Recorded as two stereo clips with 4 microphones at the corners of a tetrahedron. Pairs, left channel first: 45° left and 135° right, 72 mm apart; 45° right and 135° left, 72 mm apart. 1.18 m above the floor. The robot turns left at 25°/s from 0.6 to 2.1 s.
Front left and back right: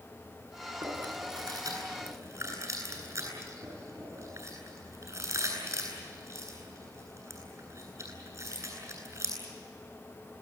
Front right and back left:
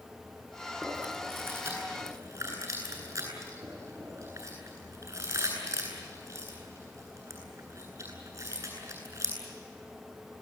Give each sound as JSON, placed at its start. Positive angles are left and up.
{"t": 0.8, "sound": "chewing", "azimuth_deg": -145, "distance_m": 9.5}